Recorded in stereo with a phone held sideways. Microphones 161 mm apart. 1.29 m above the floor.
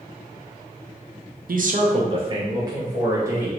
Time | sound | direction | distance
1.5 | a man speaking | 70° right (ahead or behind) | 0.5 m